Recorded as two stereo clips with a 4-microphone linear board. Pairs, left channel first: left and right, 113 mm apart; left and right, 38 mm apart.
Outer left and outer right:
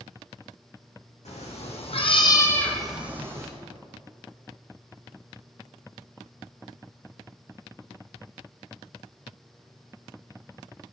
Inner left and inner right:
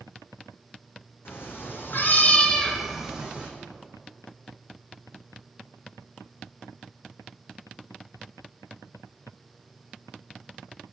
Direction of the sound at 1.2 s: 85° left.